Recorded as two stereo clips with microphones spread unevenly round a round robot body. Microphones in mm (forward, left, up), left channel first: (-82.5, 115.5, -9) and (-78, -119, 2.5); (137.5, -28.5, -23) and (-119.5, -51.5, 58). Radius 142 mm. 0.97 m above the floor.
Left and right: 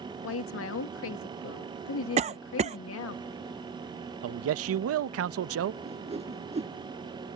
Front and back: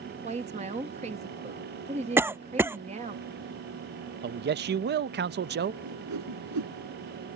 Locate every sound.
0.2 s a woman speaking: 110° left
2.2 s a cough: 65° right
4.2 s a man speaking: 115° right
5.8 s a whoosh: 155° right